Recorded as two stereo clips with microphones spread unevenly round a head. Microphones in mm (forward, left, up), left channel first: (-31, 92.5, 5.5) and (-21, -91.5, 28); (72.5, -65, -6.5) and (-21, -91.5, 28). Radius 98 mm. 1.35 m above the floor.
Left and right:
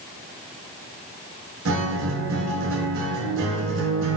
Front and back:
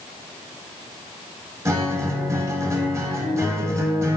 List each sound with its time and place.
1.6 s a guitar: 100° right, 0.9 m